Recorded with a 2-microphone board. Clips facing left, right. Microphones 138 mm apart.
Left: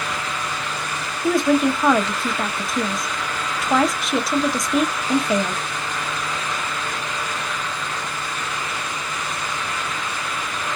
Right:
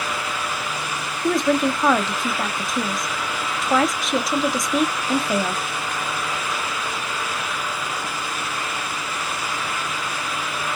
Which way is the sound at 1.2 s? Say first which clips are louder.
Left 2 dB; centre (ahead or behind).